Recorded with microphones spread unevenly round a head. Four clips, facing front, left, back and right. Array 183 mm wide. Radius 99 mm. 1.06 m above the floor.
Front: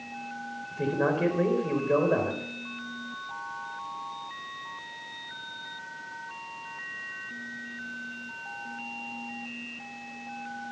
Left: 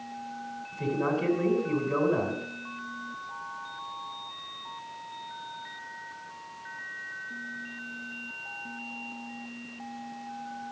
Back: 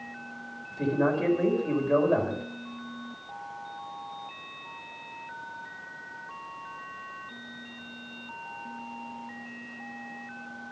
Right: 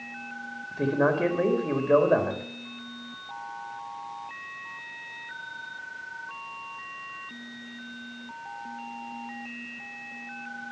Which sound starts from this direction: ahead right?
A man speaking, at 0.7 s.